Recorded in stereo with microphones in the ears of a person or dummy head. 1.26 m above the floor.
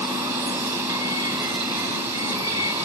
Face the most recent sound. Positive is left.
turn(degrees=-20)  # may be behind; listen again after turning